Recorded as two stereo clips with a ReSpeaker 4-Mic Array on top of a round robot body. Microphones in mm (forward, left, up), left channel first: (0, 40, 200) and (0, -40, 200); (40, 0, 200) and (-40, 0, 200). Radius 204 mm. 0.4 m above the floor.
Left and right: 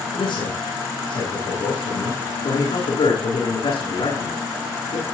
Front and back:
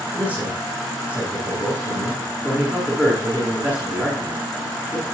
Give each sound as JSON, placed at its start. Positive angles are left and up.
{"t": 0.1, "sound": "a man speaking", "azimuth_deg": 105, "distance_m": 9.5}